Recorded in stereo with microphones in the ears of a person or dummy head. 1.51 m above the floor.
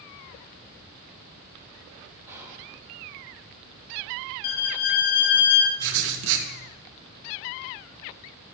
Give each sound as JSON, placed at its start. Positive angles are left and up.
{"t": 2.3, "sound": "whispering", "side_deg": -15, "distance_m": 2.5}
{"t": 4.4, "sound": "a violin", "side_deg": 55, "distance_m": 1.0}
{"t": 5.8, "sound": "writing", "side_deg": -65, "distance_m": 1.6}